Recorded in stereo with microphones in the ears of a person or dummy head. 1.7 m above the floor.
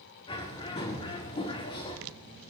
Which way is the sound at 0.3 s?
30° left (ahead or behind).